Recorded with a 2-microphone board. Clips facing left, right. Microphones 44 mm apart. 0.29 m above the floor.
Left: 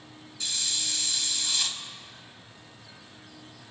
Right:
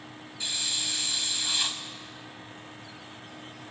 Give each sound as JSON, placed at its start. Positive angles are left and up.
{"t": 0.4, "sound": "a hiss", "side_deg": -20, "distance_m": 0.7}